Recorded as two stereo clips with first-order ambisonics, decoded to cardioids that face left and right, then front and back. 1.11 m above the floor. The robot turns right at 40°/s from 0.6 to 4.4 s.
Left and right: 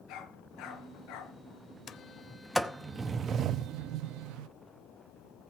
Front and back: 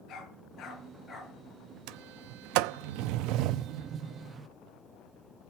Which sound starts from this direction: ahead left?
A dog barking, at 0.1 s.